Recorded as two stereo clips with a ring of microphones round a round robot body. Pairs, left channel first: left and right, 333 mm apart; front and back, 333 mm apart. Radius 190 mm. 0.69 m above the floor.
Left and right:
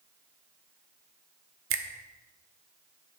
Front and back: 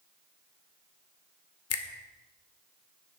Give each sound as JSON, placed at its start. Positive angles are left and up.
{"t": 1.7, "sound": "a finger snap", "azimuth_deg": -40, "distance_m": 1.2}